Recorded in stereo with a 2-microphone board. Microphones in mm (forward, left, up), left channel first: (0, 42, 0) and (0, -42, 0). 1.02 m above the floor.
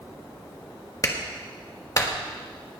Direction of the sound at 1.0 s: 40° left (ahead or behind).